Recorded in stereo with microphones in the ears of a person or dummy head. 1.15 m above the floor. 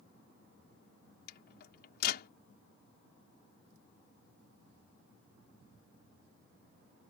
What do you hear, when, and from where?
1.3 s a microwave: 55° left (ahead or behind)